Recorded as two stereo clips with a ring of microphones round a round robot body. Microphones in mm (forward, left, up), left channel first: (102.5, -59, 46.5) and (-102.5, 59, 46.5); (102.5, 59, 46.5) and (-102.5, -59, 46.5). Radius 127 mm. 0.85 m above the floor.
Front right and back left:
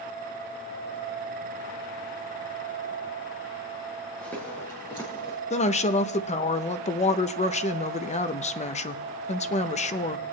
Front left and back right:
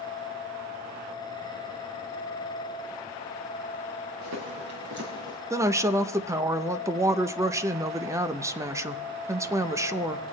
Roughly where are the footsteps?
Behind right.